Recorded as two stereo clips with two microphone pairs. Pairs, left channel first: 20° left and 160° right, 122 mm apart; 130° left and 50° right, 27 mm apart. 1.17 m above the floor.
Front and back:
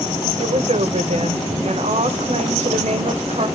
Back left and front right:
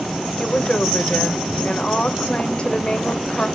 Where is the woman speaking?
175° left, 0.8 m.